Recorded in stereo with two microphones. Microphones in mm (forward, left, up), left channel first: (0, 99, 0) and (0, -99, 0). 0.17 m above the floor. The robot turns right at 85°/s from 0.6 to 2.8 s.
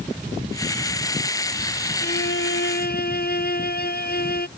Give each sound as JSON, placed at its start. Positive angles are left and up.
{"t": 2.0, "sound": "a violin", "azimuth_deg": 55}